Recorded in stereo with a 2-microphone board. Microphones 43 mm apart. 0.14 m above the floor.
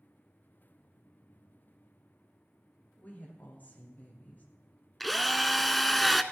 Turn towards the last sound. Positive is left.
turn(degrees=0)  # may be behind; listen again after turning